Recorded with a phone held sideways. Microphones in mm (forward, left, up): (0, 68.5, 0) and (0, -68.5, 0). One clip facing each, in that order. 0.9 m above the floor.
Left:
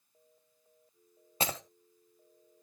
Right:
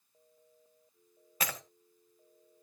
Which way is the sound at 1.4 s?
30° left (ahead or behind).